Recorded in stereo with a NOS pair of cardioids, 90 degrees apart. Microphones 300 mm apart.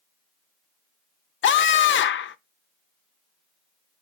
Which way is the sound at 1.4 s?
40° left.